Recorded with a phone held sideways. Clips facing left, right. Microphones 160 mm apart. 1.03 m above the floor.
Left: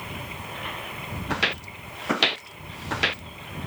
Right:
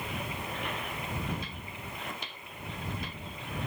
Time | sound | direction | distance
1.3 | footsteps | 85° left | ?